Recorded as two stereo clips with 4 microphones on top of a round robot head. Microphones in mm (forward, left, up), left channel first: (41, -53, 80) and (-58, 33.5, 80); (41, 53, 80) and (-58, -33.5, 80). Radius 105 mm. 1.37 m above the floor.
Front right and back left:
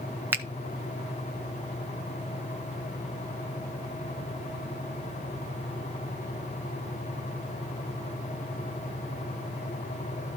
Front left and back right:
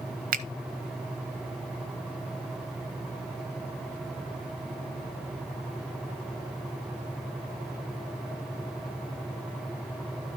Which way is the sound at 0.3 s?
145° right.